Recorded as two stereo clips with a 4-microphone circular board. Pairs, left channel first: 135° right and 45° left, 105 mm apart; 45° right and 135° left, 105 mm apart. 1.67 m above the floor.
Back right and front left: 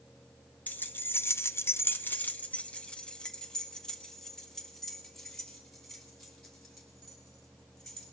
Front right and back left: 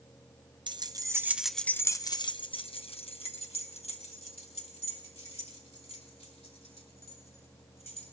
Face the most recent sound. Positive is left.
turn(degrees=-45)